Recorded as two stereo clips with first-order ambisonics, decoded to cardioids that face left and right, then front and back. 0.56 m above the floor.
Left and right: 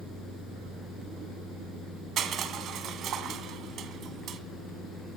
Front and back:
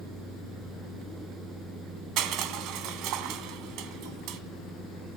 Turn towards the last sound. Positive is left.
turn(degrees=-145)